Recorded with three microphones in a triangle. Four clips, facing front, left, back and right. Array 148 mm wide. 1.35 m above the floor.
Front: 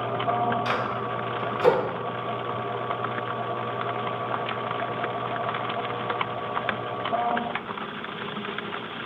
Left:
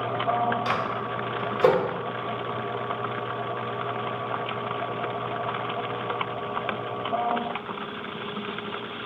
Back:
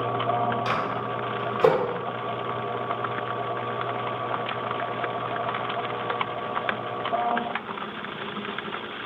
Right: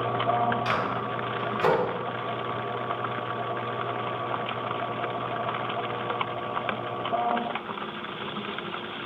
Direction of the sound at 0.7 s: 150° left.